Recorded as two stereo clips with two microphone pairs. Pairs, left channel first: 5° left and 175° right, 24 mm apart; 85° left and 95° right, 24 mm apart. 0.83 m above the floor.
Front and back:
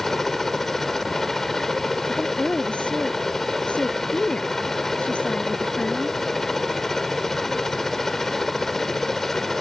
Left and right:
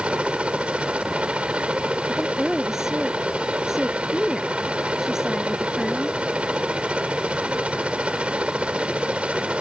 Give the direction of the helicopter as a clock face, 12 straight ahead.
2 o'clock.